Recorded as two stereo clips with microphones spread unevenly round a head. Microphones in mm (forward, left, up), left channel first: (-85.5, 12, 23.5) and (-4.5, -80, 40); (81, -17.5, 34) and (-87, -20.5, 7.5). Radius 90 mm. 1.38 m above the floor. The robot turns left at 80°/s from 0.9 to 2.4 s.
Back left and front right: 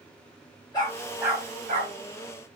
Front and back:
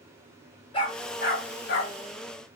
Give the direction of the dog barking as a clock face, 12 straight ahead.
10 o'clock.